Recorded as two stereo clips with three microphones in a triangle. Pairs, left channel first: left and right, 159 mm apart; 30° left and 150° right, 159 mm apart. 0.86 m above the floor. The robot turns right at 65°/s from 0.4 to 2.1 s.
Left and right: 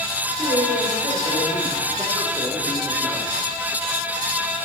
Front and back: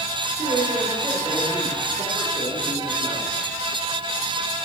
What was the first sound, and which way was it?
A man speaking, 120° right.